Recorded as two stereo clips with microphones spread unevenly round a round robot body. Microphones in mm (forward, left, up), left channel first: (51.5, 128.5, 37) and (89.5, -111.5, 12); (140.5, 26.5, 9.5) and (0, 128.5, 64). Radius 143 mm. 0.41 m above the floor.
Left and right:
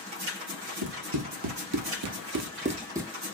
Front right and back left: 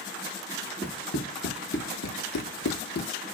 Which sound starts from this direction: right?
Running footsteps, at 0.8 s.